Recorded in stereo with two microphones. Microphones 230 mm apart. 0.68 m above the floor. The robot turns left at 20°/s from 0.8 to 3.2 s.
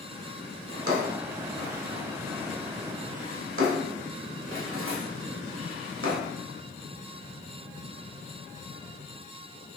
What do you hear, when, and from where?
0.7 s a drawer: 70° right (ahead or behind), 1.2 m; by 6.3 s 65° right (ahead or behind), 1.2 m